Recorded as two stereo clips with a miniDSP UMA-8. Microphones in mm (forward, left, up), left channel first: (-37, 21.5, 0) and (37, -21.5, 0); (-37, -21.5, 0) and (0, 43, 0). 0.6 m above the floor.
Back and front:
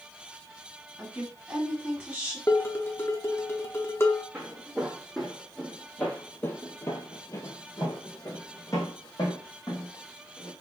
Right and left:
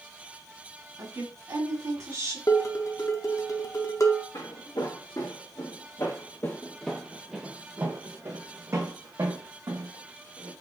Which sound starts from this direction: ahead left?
A woman speaking, at 1.0 s.